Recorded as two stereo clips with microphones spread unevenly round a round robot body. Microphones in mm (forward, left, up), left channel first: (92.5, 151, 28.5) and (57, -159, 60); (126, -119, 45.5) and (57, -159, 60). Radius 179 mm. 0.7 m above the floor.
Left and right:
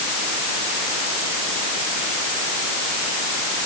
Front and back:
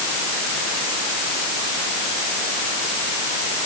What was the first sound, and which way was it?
Only background noise.